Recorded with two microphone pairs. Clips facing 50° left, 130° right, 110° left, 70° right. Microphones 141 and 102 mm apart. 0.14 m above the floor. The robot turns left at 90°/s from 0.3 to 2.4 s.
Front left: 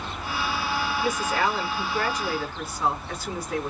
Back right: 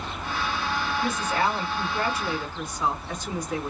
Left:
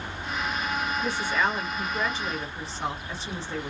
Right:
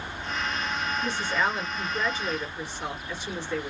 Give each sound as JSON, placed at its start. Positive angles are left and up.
{"t": 1.0, "sound": "a woman speaking", "azimuth_deg": -110, "distance_m": 2.0}